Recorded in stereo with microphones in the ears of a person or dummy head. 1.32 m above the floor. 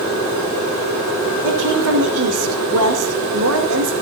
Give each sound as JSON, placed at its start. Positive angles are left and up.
{"t": 1.4, "sound": "a woman speaking", "side_deg": -70, "distance_m": 3.5}